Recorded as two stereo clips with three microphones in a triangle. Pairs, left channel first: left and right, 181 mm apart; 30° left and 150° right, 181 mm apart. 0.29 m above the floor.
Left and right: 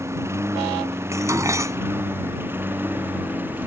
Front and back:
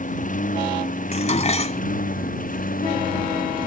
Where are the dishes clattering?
20° right.